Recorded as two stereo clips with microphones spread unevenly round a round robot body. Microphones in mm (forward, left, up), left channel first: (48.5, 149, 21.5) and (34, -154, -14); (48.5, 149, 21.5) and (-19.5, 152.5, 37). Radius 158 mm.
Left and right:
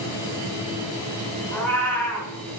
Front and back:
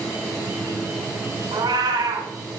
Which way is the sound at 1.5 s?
170° left.